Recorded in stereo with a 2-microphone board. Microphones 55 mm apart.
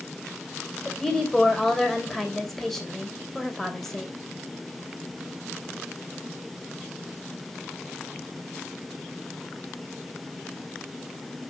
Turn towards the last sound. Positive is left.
turn(degrees=5)  # may be behind; listen again after turning